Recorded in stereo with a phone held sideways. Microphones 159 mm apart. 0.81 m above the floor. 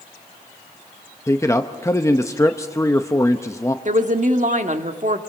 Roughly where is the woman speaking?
Right.